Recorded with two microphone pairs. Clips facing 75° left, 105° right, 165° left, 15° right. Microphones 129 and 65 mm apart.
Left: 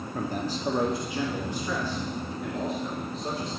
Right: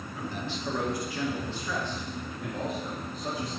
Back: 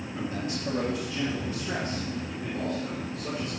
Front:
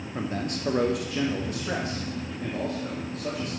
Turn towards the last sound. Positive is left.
turn(degrees=-20)